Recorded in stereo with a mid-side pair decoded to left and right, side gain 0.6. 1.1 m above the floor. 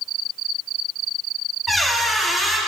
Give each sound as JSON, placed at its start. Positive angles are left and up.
{"t": 1.7, "sound": "a squeak", "azimuth_deg": -5, "distance_m": 1.4}